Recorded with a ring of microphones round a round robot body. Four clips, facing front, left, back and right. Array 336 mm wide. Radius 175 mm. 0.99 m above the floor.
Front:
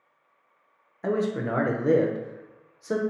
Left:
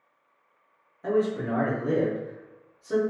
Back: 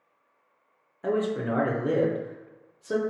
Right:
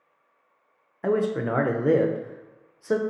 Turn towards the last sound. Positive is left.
turn(degrees=-75)